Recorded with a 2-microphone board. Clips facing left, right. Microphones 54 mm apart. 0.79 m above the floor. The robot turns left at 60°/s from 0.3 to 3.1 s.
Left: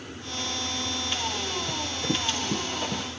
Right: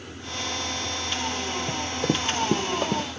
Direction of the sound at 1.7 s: 50° right (ahead or behind).